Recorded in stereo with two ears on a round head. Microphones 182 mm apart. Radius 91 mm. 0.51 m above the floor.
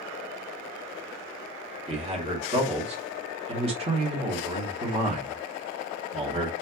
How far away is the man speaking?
About 1.0 m.